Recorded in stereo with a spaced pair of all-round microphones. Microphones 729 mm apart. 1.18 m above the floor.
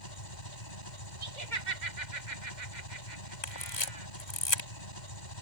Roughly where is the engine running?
Left.